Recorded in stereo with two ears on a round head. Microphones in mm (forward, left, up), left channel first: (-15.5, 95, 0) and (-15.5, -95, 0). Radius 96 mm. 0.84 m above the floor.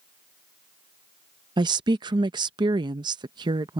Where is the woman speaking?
20° right (ahead or behind).